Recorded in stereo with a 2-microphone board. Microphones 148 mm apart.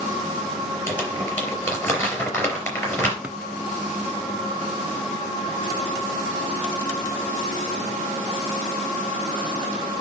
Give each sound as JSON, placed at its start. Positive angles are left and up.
{"t": 0.9, "sound": "crumpling", "side_deg": 15, "distance_m": 4.0}
{"t": 3.2, "sound": "a drawer", "side_deg": -10, "distance_m": 0.6}